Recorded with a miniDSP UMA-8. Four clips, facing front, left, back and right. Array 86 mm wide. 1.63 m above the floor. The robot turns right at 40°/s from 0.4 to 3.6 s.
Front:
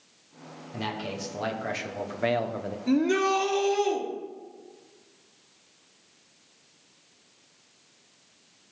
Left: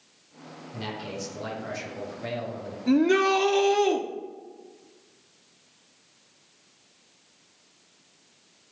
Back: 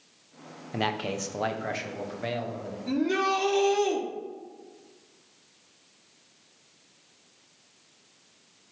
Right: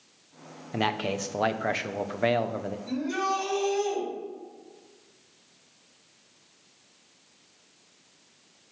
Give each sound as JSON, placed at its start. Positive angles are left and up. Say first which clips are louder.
{"t": 0.7, "sound": "a man speaking", "louder": "right 7 dB, back 4 dB", "azimuth_deg": -130, "distance_m": 0.9}
{"t": 2.9, "sound": "a shout", "louder": "left 9 dB, front 3 dB", "azimuth_deg": 65, "distance_m": 1.3}